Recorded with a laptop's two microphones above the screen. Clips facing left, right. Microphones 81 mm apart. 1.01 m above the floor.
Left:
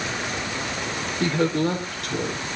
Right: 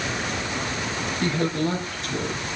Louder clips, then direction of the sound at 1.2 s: Left 3 dB; 50° left (ahead or behind).